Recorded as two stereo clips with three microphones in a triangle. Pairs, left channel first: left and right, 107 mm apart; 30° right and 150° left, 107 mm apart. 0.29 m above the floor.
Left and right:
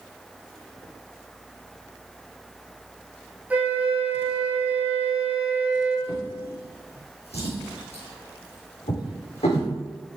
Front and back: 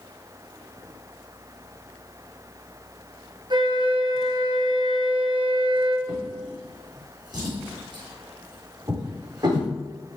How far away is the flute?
About 1.3 m.